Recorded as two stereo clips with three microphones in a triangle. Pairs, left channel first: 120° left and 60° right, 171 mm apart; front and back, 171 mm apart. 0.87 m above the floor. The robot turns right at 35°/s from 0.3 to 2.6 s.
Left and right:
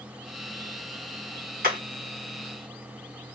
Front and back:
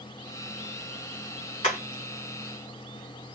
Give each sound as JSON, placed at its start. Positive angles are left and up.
{"t": 1.6, "sound": "hammering", "azimuth_deg": -40, "distance_m": 3.5}